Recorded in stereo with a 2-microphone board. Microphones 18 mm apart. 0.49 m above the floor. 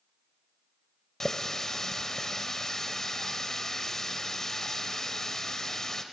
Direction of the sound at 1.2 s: 25° left (ahead or behind).